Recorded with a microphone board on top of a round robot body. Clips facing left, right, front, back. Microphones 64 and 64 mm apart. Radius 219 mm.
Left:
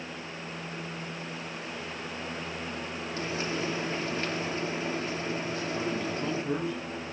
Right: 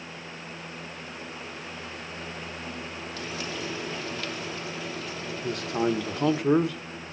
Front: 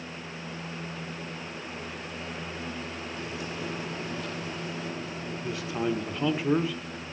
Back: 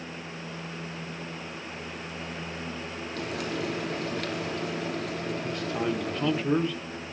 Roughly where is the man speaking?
Right.